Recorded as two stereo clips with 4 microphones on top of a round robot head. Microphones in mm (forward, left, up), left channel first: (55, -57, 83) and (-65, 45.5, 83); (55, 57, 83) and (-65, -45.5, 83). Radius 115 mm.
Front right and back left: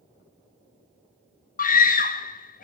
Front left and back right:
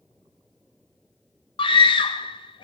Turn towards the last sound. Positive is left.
turn(degrees=-15)